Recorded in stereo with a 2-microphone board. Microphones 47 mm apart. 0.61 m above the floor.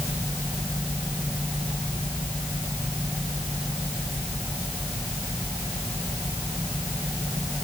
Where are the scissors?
No scissors in this recording.